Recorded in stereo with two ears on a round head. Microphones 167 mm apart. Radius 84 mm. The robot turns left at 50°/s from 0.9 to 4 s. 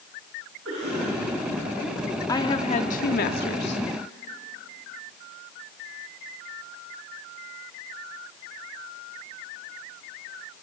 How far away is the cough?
About 6.5 m.